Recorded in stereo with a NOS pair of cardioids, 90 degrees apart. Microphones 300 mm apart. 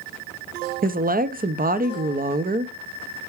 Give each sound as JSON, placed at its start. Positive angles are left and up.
{"t": 0.8, "sound": "a woman speaking", "azimuth_deg": -30, "distance_m": 0.7}